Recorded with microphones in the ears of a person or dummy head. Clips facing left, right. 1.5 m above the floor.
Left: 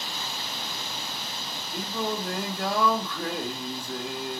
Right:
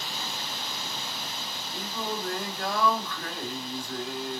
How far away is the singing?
About 2.5 m.